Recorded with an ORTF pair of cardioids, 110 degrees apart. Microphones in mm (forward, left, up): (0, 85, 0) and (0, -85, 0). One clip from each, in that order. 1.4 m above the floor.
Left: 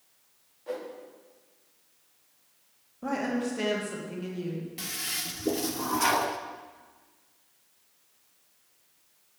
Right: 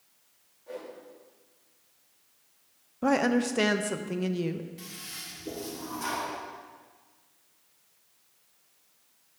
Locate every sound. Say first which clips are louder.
0.7 s a whoosh: left 5 dB; 60° left, 3 m
3.0 s a woman speaking: right 5 dB; 50° right, 1.0 m
4.8 s a toilet flushing: left 8 dB; 50° left, 0.8 m